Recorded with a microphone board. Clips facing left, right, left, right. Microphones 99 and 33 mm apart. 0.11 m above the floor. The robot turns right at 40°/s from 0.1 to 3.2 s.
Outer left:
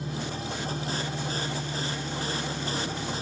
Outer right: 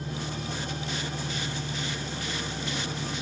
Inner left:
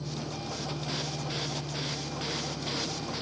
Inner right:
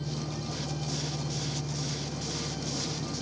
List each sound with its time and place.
0.0 s an engine running: 160° left, 3.5 m; by 3.2 s 75° right, 3.5 m